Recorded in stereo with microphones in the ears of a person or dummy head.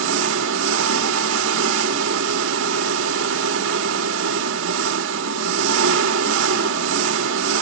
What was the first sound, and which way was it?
An engine running, 70° right (ahead or behind).